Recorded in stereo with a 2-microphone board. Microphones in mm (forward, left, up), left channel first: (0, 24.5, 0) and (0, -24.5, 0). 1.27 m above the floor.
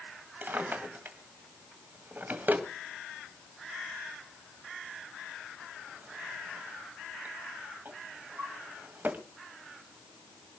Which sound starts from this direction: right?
A drawer, at 0.4 s.